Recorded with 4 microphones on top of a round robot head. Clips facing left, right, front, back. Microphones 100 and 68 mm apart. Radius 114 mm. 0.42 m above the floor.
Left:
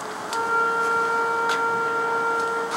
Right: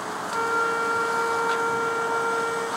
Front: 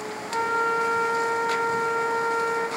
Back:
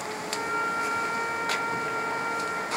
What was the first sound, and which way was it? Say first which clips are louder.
A flute: left 2 dB, front 6 dB; 25° left.